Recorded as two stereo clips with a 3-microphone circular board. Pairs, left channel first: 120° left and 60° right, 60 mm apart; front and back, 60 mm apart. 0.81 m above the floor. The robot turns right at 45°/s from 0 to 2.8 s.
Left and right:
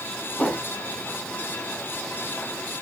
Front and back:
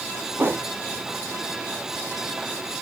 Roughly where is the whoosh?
Behind.